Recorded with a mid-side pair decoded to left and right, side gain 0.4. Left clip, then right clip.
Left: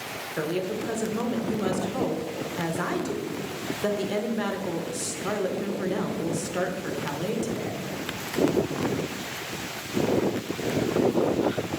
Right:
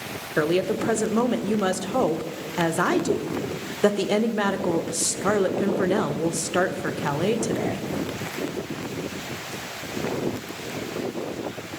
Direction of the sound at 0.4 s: 65° right.